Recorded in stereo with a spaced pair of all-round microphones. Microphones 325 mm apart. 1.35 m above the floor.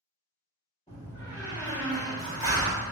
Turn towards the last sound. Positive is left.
turn(degrees=20)  # may be behind; listen again after turning